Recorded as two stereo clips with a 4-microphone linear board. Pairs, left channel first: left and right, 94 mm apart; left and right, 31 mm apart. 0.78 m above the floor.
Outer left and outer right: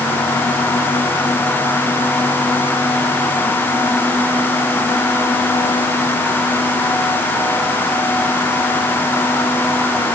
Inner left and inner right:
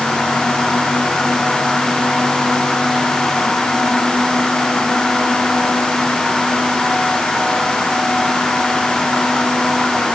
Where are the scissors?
I don't hear scissors.